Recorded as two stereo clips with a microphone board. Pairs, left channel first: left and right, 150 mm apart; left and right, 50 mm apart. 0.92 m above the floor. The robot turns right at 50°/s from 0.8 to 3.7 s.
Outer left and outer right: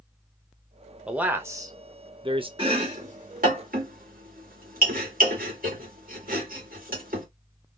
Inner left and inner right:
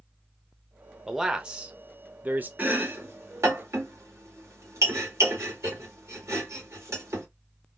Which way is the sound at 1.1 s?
170° right.